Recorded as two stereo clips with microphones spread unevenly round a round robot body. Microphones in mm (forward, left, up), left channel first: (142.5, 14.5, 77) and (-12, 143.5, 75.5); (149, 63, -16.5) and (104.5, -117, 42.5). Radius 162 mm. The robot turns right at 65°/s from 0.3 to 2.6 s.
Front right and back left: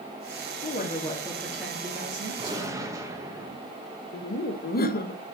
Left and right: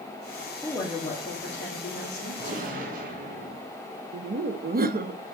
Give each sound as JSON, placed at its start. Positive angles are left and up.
{"t": 0.6, "sound": "a woman speaking", "azimuth_deg": -5, "distance_m": 2.5}
{"t": 2.4, "sound": "a gunshot", "azimuth_deg": -165, "distance_m": 1.2}
{"t": 4.1, "sound": "laughter", "azimuth_deg": -60, "distance_m": 0.9}